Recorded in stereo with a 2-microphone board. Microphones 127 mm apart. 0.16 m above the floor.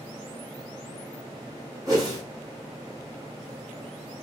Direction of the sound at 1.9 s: 30° right (ahead or behind).